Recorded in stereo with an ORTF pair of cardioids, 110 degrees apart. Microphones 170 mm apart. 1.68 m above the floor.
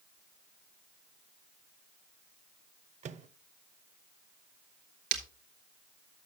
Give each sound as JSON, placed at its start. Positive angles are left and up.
{"t": 3.0, "sound": "a microwave", "azimuth_deg": -45, "distance_m": 0.8}
{"t": 5.1, "sound": "breaking glass", "azimuth_deg": -65, "distance_m": 2.5}